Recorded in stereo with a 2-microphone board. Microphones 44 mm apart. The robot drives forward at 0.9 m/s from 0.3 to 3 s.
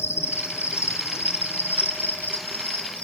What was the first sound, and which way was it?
An insect, 65° left (ahead or behind).